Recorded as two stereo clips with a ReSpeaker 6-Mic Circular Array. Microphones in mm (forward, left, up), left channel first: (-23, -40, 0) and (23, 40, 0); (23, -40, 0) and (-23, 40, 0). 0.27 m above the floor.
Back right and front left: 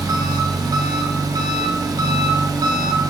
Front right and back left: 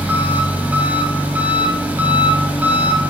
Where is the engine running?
55° left, 0.9 m.